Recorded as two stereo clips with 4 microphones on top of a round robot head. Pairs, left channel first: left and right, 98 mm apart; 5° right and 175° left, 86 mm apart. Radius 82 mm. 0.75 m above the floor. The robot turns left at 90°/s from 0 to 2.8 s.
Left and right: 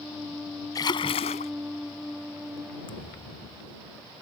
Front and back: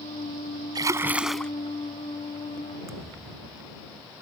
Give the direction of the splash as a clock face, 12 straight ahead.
7 o'clock.